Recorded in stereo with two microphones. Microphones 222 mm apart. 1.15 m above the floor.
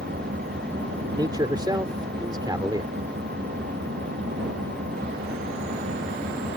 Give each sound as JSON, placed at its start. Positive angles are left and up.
{"t": 0.0, "sound": "an engine running", "side_deg": -50}
{"t": 1.1, "sound": "a man speaking", "side_deg": -20}